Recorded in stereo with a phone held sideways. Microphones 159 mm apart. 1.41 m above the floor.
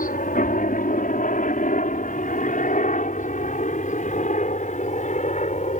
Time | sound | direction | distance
0.0 | a helicopter | 60° left (ahead or behind) | ?